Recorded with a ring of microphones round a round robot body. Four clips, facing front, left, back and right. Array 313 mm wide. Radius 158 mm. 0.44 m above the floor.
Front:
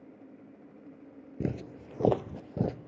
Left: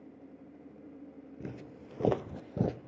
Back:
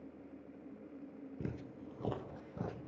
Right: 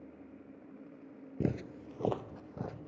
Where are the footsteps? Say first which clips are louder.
Right 10 dB, front 11 dB; 55° right, 0.7 m; by 2.8 s 45° left, 1.5 m.